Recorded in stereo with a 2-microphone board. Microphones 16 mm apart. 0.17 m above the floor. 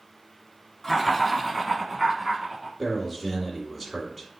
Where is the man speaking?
10° right (ahead or behind), 1.5 m.